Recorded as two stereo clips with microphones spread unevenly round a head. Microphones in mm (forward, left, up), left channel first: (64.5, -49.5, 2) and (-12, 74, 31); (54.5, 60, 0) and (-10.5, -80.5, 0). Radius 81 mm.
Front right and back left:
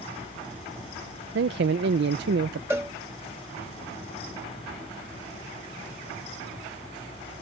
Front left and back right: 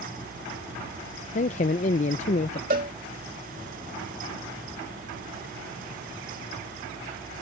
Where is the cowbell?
160° right.